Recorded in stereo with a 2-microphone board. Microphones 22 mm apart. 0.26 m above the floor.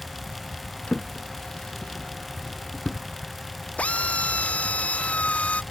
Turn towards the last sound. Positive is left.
turn(degrees=75)  # may be behind; listen again after turning